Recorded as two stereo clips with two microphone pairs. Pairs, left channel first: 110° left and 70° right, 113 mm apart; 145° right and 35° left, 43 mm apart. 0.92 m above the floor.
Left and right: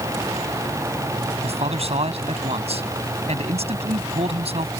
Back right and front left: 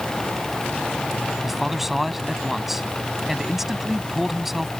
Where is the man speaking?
45° right.